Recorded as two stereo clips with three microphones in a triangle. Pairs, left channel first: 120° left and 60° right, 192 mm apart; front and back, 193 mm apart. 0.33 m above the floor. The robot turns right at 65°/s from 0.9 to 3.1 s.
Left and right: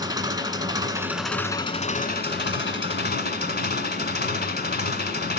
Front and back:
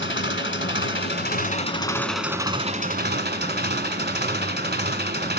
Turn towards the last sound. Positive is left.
turn(degrees=150)